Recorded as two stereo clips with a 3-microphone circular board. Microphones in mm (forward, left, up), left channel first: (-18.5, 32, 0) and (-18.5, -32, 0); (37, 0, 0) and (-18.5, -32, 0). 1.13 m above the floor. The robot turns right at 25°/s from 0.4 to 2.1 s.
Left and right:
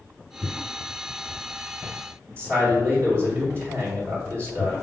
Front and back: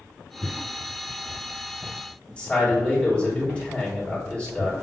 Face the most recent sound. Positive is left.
turn(degrees=-40)